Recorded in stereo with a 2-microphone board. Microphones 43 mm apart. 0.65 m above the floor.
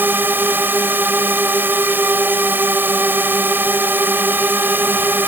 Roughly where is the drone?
Right.